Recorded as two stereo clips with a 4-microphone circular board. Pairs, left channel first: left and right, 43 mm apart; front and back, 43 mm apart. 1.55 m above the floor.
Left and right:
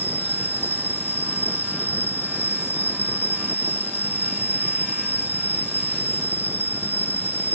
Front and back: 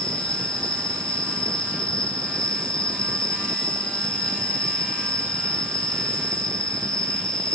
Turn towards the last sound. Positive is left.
turn(degrees=65)